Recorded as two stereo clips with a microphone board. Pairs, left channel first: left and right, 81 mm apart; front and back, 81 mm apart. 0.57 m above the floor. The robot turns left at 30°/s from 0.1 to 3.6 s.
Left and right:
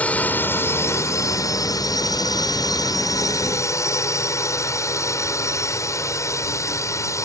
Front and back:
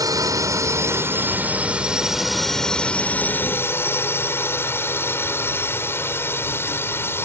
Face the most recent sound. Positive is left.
turn(degrees=50)